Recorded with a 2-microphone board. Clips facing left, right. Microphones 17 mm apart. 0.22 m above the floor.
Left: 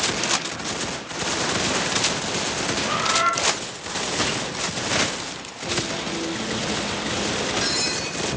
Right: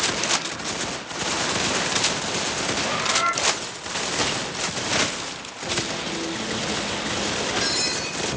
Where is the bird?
15° left (ahead or behind), 2.5 m.